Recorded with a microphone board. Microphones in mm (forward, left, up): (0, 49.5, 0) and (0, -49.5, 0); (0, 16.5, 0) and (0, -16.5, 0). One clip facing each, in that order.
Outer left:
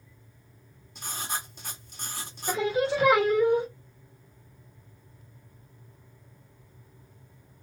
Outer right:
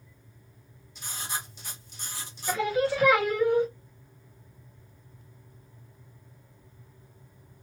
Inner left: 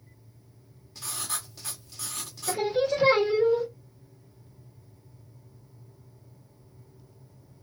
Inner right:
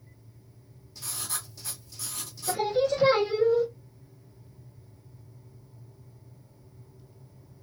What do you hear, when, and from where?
0.9 s writing: 55° left (ahead or behind), 1.2 m
2.5 s singing: 25° left (ahead or behind), 1.3 m